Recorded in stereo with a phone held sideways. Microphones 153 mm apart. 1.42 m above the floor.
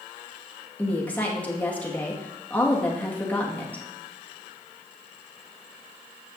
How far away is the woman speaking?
About 2 m.